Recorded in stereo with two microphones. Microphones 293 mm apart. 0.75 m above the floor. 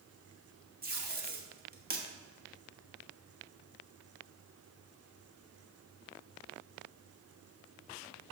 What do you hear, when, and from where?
0.8 s tape being pulled: 30° right (ahead or behind), 1.1 m